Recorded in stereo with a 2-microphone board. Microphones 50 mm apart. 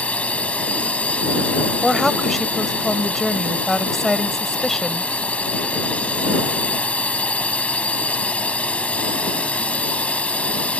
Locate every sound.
0.0 s a drone: 30° left (ahead or behind)
1.8 s a woman speaking: 5° left (ahead or behind)